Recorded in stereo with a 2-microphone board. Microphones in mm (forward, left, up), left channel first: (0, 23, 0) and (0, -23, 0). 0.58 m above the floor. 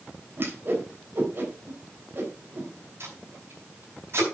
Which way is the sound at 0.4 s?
45° right (ahead or behind).